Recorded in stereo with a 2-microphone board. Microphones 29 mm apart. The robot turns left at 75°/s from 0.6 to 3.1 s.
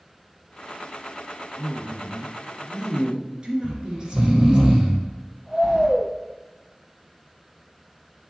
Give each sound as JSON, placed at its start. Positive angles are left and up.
{"t": 1.6, "sound": "a woman speaking", "azimuth_deg": 70, "distance_m": 2.0}
{"t": 3.6, "sound": "snoring", "side_deg": -20, "distance_m": 1.4}
{"t": 5.6, "sound": "keys jangling", "side_deg": -10, "distance_m": 1.6}